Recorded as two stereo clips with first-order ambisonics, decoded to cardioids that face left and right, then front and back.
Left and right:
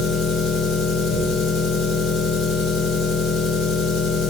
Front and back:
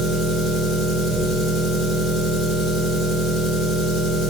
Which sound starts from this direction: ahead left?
An engine running, at 0.0 s.